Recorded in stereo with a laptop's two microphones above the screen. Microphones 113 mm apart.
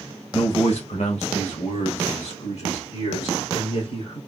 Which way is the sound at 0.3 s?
50° left (ahead or behind).